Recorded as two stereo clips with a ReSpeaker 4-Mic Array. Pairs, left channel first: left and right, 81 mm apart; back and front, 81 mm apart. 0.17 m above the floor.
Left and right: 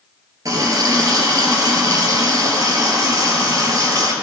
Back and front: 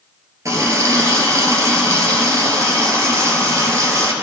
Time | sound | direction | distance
0.5 | a running tap | 50° right | 1.9 m